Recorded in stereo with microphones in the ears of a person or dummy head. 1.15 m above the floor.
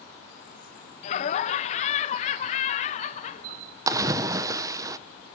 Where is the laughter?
35° left (ahead or behind), 1.2 m.